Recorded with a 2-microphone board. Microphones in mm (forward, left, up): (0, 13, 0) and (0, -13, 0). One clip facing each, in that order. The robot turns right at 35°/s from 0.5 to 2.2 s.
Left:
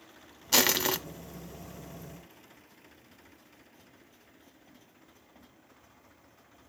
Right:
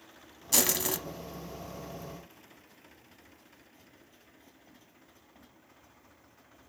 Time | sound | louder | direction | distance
0.5 | crushing | left 4 dB | 30° left (ahead or behind) | 0.8 m